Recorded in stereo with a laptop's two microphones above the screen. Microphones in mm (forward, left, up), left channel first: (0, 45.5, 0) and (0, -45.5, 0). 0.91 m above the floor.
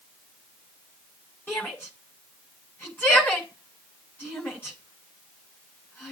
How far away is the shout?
About 6.5 m.